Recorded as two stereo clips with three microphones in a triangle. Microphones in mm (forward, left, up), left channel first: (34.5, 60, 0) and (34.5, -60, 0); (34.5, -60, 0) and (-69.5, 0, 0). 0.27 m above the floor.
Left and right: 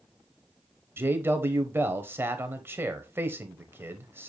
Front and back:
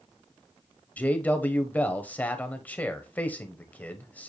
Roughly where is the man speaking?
Right.